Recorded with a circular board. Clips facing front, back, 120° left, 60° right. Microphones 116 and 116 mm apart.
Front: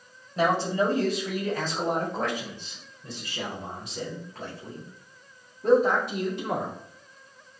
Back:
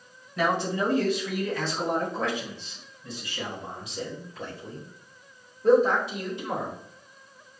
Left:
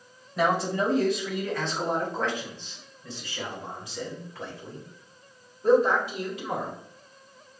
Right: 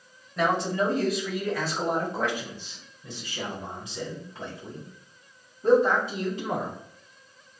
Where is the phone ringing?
I don't hear a phone ringing.